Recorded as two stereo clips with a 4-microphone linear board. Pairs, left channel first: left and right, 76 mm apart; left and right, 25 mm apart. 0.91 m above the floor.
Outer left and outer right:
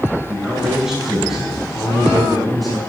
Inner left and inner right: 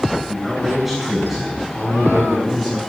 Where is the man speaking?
10° right (ahead or behind), 6 m; by 2.8 s 5° left (ahead or behind), 5.5 m.